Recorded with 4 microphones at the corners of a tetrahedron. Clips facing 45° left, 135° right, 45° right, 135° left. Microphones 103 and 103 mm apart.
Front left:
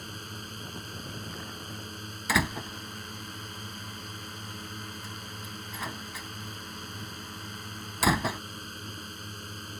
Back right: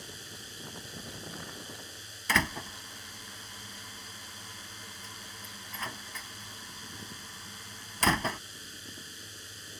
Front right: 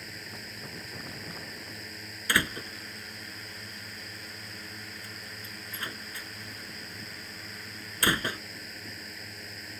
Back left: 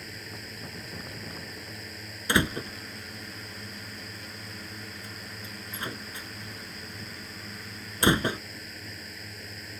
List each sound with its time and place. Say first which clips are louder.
0.0 s a drone: front left 6 dB, back left 2 dB; 45° left
2.3 s a door slam: front left 2 dB, back left 4 dB; 120° left